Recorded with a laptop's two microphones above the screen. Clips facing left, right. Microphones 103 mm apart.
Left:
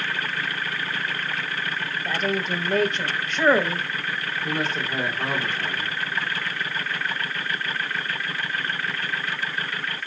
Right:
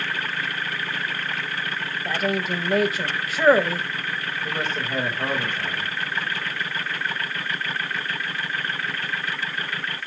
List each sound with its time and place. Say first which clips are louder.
2.0 s a woman speaking: right 1 dB; 5° right (ahead or behind), 0.8 m
4.4 s a man speaking: left 1 dB; 10° left (ahead or behind), 2.0 m